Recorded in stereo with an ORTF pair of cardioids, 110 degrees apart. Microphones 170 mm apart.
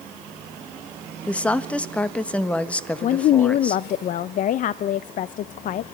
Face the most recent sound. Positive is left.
turn(degrees=50)